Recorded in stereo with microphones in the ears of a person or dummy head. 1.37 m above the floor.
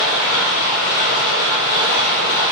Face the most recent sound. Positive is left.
turn(degrees=70)  # may be behind; listen again after turning